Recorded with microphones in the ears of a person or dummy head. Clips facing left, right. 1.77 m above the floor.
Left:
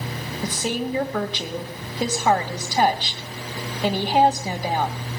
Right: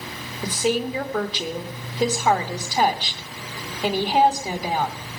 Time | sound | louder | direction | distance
0.4 | a woman speaking | right 4 dB | centre (ahead or behind) | 1.1 m